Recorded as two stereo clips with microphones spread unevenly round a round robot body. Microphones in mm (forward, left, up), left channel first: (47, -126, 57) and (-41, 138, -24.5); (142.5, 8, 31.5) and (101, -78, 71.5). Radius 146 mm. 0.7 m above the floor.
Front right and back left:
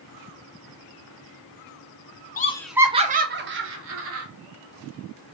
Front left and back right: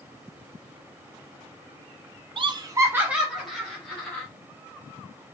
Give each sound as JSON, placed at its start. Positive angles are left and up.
{"t": 2.4, "sound": "laughter", "azimuth_deg": -135, "distance_m": 0.6}